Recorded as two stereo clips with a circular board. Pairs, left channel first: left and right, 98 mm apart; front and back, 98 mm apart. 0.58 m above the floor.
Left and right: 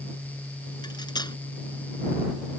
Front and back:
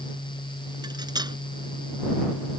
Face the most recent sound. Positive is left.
turn(degrees=135)